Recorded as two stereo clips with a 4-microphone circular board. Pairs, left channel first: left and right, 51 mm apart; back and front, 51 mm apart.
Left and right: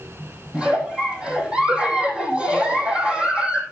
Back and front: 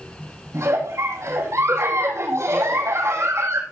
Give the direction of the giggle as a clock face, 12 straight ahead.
1 o'clock.